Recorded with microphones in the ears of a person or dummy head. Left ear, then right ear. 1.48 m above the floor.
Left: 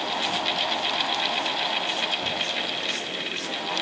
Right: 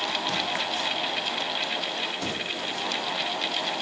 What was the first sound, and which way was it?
Only background noise.